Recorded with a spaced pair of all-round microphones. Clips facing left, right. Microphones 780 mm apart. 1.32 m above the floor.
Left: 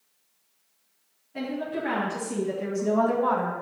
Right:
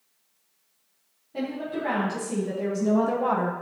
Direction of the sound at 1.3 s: 65° right (ahead or behind).